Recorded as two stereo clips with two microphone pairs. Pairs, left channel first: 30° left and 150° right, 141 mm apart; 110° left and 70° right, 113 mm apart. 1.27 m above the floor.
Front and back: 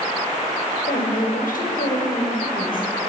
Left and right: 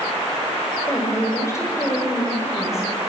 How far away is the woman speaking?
About 5.5 m.